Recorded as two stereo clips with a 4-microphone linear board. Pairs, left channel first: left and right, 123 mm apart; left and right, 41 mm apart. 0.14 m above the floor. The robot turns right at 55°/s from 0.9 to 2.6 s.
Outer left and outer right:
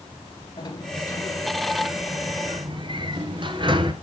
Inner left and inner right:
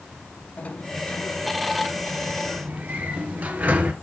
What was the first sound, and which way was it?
A sliding door, 140° left.